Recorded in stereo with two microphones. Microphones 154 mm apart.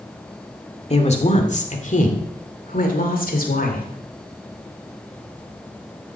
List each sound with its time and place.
0.9 s a woman speaking: 45° left (ahead or behind), 2 m; by 3.9 s 70° left (ahead or behind), 3 m